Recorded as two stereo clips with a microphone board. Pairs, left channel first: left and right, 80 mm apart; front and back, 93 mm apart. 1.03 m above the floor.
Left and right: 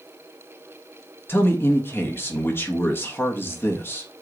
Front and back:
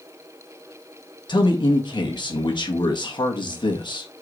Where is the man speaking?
30° left, 1.6 m.